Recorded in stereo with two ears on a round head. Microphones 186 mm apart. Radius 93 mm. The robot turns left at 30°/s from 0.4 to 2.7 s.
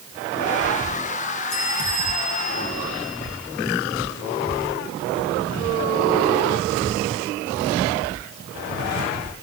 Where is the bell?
75° left, 6 m; by 3.2 s 35° left, 6 m.